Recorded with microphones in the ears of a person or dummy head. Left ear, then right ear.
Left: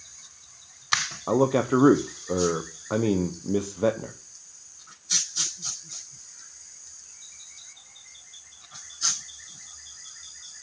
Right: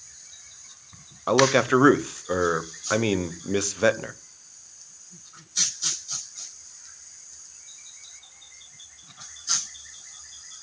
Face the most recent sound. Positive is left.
turn(degrees=-50)  # may be behind; listen again after turning